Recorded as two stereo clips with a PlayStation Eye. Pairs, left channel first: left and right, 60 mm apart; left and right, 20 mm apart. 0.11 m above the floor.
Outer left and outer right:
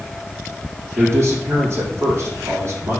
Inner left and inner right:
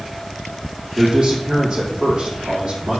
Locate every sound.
1.0 s a man speaking: 45° right (ahead or behind), 4 m